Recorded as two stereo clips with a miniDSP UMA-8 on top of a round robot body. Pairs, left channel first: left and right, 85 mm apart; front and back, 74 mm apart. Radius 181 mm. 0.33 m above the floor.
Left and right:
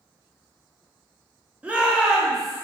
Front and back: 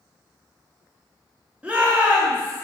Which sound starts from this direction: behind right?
A shout, at 1.6 s.